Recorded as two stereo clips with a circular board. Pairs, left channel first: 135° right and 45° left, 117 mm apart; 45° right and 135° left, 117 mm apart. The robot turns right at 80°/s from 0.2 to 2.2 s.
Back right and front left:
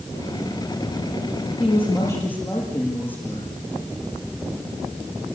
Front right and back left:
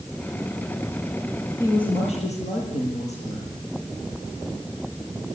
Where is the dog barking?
No dog barking in this recording.